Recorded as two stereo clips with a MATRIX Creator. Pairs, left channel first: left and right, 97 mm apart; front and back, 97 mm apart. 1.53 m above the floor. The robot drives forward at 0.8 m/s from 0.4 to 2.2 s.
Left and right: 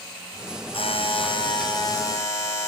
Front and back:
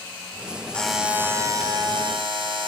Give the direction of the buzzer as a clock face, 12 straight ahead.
9 o'clock.